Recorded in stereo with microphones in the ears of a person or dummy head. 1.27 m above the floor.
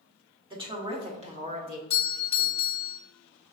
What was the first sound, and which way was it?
A woman speaking, 15° right (ahead or behind).